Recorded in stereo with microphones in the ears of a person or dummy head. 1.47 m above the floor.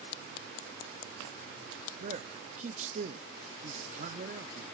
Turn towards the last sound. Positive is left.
turn(degrees=-35)  # may be behind; listen again after turning